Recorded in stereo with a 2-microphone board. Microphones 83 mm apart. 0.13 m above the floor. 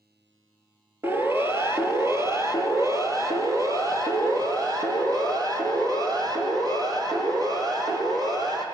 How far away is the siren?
About 3 m.